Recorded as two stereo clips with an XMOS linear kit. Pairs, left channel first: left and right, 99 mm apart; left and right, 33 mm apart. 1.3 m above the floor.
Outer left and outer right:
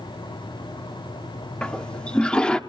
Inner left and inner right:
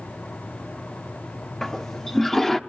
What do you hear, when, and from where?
1.6 s a toilet flushing: 10° left (ahead or behind), 1.0 m